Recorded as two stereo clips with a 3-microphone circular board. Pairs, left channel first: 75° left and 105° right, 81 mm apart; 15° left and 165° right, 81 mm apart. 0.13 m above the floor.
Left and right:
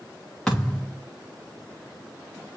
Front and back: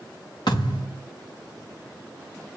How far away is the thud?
About 5.5 m.